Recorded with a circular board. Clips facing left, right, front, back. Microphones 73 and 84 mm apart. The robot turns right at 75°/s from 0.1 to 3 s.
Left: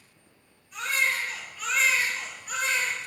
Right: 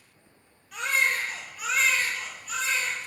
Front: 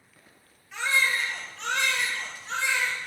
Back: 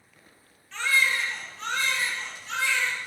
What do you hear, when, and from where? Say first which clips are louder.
0.7 s a baby crying: right 1 dB, back 1 dB; 80° right, 2.5 m; by 3.0 s 90° left, 2.5 m